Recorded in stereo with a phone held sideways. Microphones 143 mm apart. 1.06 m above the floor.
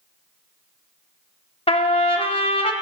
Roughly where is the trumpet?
Left.